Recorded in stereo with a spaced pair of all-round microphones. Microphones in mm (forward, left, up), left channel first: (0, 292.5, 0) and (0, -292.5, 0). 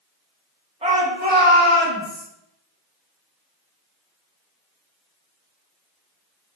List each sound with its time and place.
0.8 s a shout: 10° right (ahead or behind), 1.4 m; by 2.2 s 20° right (ahead or behind), 2 m